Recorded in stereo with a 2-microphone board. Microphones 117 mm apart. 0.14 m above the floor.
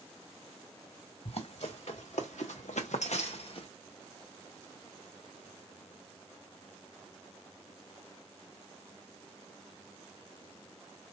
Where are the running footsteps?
60° left (ahead or behind), 1.7 m; by 3.7 s 45° left (ahead or behind), 1.0 m.